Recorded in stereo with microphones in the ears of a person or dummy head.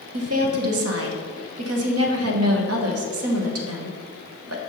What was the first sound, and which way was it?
A woman speaking, 70° right (ahead or behind).